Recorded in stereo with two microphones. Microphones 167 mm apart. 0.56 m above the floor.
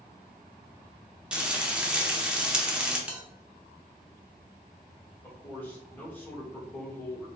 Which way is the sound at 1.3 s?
5° right (ahead or behind).